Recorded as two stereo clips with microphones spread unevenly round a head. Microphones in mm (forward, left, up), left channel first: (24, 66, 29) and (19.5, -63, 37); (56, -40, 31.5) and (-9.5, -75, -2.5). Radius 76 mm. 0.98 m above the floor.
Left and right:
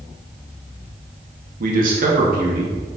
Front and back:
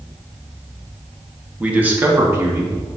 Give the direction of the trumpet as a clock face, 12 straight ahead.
I don't hear a trumpet.